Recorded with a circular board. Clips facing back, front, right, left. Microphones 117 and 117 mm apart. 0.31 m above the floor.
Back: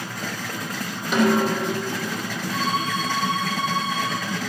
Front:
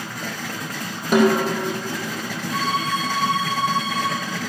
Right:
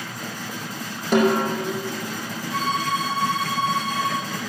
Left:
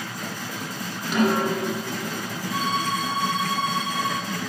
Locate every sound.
1.1 s a snare drum: 45° right, 3.5 m
2.5 s a violin: 15° left, 3 m